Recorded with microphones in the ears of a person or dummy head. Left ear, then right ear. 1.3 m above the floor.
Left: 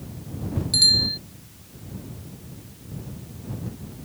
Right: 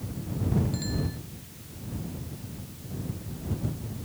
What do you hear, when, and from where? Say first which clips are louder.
0.7 s a bicycle bell: left 18 dB; 90° left